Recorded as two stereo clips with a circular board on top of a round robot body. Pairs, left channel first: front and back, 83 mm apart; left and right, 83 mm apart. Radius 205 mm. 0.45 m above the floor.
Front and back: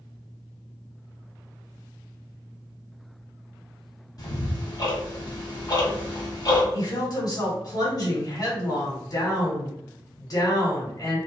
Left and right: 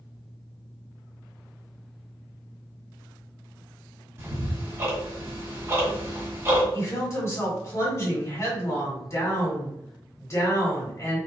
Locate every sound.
4.2 s ticking: 35° right, 1.5 m
6.7 s a woman speaking: 35° left, 1.7 m